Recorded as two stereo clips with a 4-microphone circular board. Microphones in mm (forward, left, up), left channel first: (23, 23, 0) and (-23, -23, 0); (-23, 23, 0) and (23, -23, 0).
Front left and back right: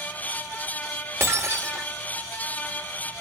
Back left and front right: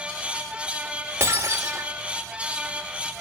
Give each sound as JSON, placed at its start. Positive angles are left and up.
{"t": 1.2, "sound": "breaking glass", "azimuth_deg": -90, "distance_m": 2.5}